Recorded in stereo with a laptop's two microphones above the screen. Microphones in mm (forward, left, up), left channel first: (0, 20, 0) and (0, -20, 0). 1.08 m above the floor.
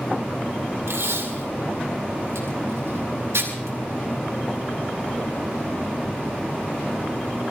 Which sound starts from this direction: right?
Tape being pulled, at 0.9 s.